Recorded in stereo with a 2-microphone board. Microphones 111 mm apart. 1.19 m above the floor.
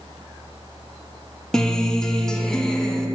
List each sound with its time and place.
1.5 s a guitar: 5° left (ahead or behind), 0.5 m